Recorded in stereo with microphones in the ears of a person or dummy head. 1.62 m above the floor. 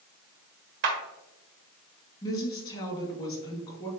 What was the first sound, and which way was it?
A clap, 65° right (ahead or behind).